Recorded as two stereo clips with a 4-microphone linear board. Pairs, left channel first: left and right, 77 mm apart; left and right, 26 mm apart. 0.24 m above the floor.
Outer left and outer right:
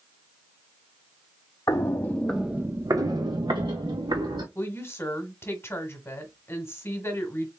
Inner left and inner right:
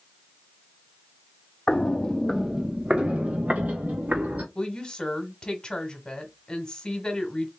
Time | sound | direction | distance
1.7 | footsteps | 40° left (ahead or behind) | 0.8 m
4.5 | a woman speaking | 35° left (ahead or behind) | 1.2 m